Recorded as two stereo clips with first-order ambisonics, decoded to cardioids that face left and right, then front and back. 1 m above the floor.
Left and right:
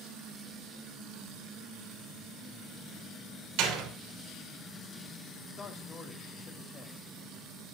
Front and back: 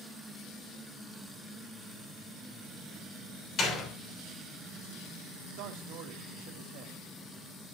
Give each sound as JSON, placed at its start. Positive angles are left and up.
{"t": 3.6, "sound": "a door slam", "azimuth_deg": -60, "distance_m": 3.0}
{"t": 5.6, "sound": "a man speaking", "azimuth_deg": 160, "distance_m": 1.5}